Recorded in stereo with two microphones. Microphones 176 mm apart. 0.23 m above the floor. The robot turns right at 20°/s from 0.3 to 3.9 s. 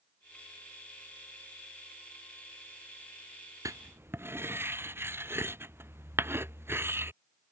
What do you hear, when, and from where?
3.6 s writing: 20° right (ahead or behind); by 7.1 s 15° right (ahead or behind)